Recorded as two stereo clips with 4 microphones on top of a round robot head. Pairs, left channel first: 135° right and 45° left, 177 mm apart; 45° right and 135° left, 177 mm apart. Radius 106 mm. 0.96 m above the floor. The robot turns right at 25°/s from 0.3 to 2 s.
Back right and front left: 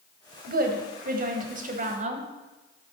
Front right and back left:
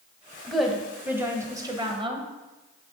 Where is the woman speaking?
40° left, 1.2 m; by 2.3 s 80° left, 1.2 m.